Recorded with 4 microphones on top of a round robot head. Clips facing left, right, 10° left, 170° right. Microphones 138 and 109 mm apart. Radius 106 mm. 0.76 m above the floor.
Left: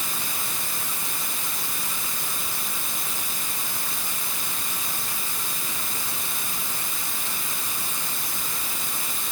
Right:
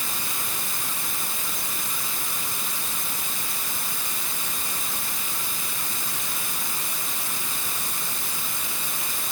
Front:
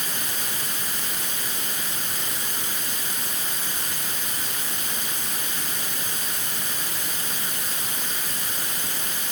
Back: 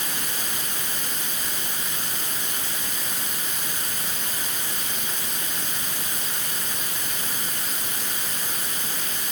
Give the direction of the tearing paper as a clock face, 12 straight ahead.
I don't hear tearing paper.